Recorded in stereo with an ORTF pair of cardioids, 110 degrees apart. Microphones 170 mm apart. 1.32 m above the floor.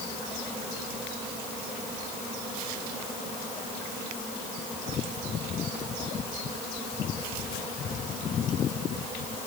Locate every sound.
Only background noise.